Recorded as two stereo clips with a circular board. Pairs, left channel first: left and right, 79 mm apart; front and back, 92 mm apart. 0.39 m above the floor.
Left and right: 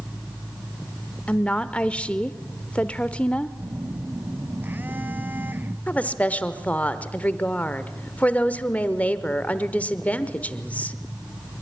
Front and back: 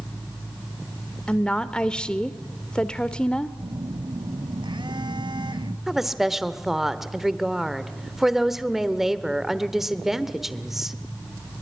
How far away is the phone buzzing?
About 1.2 m.